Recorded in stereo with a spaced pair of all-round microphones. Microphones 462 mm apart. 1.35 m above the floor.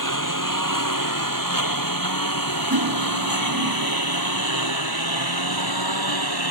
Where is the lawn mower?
40° left (ahead or behind); by 6.5 s 55° left (ahead or behind).